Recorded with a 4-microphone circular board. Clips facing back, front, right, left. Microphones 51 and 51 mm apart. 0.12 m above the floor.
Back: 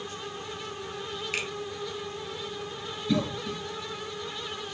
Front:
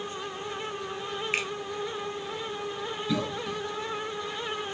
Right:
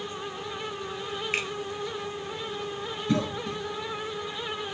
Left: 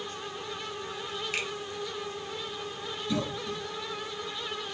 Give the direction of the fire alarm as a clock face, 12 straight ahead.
No fire alarm in this recording.